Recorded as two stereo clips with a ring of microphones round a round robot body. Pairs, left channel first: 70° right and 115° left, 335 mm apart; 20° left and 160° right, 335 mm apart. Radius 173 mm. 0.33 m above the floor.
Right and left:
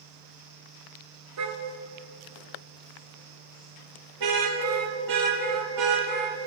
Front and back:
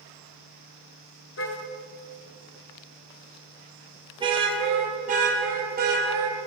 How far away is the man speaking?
No man speaking in this recording.